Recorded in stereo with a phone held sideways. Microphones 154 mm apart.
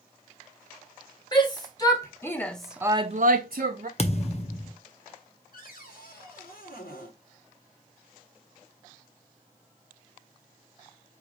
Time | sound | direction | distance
1.3 | a shout | 30° left (ahead or behind) | 1.9 m
4.0 | a thud | 40° left (ahead or behind) | 0.8 m
5.5 | a cupboard door | 70° left (ahead or behind) | 1.8 m